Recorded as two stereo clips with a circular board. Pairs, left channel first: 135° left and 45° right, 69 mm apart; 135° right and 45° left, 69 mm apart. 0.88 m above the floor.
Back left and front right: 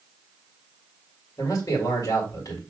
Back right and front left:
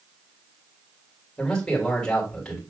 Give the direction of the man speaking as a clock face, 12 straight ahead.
7 o'clock.